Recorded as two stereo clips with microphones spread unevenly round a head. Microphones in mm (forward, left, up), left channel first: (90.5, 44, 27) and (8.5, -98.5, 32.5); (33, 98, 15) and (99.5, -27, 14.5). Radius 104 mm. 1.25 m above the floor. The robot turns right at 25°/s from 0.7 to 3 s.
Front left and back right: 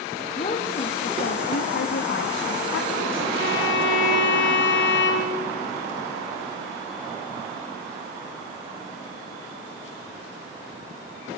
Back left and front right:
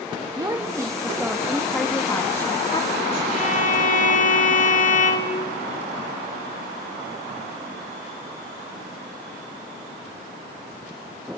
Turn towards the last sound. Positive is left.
turn(degrees=85)